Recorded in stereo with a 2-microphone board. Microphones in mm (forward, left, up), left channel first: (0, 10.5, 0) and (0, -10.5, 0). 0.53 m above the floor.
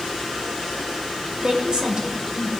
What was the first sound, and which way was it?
A woman speaking, 50° right (ahead or behind).